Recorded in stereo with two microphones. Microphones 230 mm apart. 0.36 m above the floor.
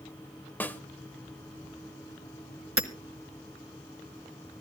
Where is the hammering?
65° right (ahead or behind), 1.0 m.